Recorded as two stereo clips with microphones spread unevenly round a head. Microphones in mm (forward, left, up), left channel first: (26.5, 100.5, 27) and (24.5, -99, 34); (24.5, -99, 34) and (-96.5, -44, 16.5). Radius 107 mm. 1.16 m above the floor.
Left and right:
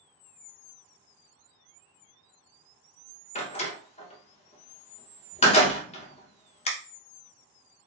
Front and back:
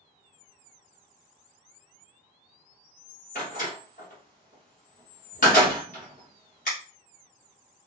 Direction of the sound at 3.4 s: 30° left.